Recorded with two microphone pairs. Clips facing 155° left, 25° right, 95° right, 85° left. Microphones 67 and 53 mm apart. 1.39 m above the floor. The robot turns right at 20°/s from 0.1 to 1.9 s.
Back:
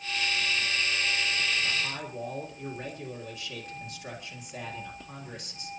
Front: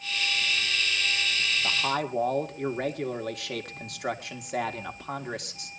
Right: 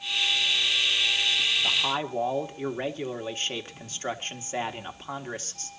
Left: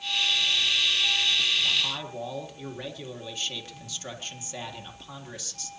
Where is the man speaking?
45° right, 1.8 m; by 5.7 s 40° right, 1.8 m.